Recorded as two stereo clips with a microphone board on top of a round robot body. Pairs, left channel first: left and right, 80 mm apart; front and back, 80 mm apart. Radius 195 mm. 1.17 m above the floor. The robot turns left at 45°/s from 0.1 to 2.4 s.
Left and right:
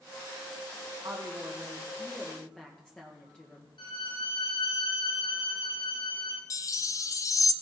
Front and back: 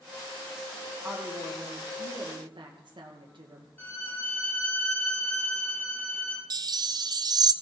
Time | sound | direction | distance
1.0 | a woman speaking | 125° right | 1.5 m
3.8 | a violin | 70° left | 3 m
6.5 | a chime | 140° left | 0.5 m